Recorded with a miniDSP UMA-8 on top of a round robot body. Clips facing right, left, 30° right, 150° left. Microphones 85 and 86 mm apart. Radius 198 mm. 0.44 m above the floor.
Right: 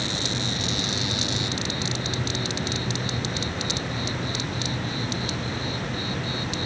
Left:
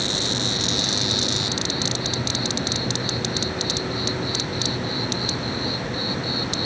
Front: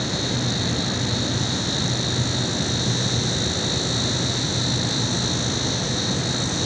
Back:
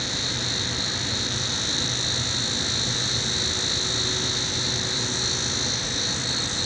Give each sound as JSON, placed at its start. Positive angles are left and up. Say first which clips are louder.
{"t": 0.0, "sound": "an insect", "louder": "left 3 dB, front 6 dB", "azimuth_deg": 10}